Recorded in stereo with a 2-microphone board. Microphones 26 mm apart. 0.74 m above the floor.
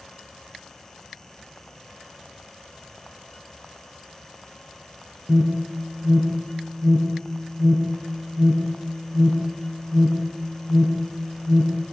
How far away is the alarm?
About 8 m.